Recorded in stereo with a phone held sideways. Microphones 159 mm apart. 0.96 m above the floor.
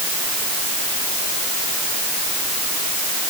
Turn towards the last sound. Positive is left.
No sound to turn to.